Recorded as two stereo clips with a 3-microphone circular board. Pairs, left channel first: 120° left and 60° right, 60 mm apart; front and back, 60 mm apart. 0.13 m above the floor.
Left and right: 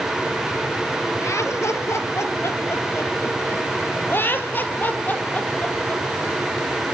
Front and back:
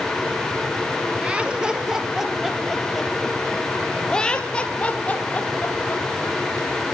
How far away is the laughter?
About 2.5 m.